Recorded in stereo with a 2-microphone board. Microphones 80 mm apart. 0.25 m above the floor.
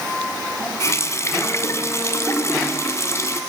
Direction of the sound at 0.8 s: 40° left (ahead or behind).